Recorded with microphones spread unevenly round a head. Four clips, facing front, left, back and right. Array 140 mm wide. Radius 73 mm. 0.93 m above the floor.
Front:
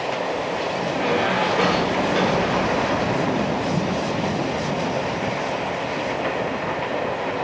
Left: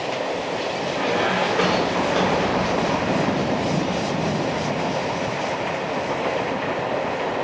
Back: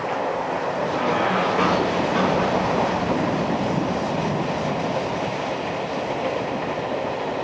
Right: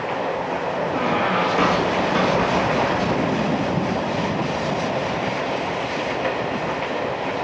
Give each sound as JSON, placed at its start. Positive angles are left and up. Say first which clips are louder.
{"t": 0.9, "sound": "a squeak", "louder": "even, even", "azimuth_deg": -115, "distance_m": 3.0}